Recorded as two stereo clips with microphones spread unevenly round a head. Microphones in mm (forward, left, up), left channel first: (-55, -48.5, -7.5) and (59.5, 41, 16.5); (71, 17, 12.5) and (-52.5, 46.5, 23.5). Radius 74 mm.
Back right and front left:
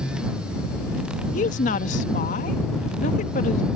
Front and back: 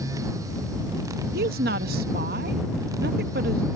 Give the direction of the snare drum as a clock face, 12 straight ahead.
I don't hear a snare drum.